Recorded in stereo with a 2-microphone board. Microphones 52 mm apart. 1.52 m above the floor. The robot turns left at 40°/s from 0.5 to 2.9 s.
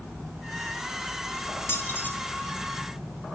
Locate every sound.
1.7 s keys jangling: 50° left (ahead or behind), 2.5 m; by 2.1 s 35° left (ahead or behind), 2.5 m